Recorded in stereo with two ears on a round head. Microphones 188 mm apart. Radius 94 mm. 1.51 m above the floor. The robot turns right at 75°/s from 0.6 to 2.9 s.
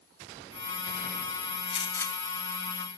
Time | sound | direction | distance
1.7 | a gunshot | 140° left | 2.5 m